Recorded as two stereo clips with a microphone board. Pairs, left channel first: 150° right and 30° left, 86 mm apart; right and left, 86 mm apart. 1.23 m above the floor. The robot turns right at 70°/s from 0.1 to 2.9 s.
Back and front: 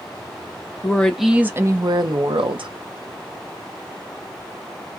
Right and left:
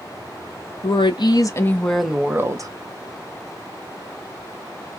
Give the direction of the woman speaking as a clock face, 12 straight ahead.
3 o'clock.